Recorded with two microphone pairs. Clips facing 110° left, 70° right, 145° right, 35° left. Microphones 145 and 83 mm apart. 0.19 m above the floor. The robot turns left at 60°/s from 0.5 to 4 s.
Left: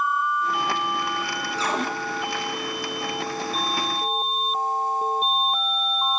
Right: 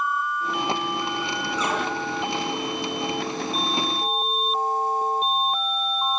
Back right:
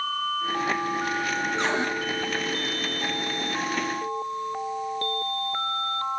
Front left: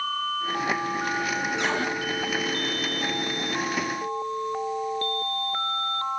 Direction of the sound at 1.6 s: 165° left.